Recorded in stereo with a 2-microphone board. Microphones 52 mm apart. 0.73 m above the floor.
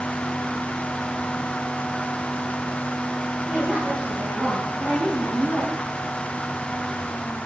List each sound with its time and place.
3.5 s a woman speaking: 15° right (ahead or behind), 5.5 m; by 5.7 s 25° right (ahead or behind), 6.5 m